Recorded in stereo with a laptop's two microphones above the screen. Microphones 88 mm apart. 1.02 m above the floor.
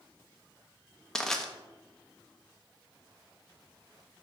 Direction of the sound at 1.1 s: 5° left (ahead or behind).